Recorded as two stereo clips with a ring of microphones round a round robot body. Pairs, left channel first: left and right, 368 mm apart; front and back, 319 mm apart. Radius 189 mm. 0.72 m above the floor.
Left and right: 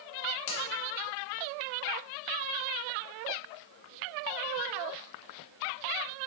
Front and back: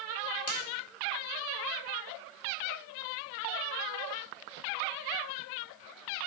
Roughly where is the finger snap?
Ahead left.